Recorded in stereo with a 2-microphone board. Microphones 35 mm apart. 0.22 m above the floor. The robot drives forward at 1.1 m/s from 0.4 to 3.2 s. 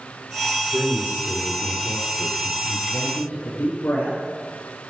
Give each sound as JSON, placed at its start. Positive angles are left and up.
{"t": 0.7, "sound": "a man speaking", "side_deg": -45, "distance_m": 3.5}
{"t": 2.9, "sound": "a man speaking", "side_deg": 60, "distance_m": 6.0}